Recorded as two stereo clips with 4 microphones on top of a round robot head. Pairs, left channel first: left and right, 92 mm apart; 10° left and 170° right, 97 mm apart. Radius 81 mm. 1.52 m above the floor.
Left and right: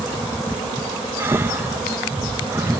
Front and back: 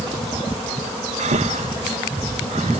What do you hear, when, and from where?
1.2 s breathing: 160° right